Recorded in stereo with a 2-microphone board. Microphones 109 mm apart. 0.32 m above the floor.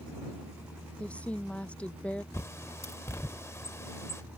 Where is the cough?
I don't hear a cough.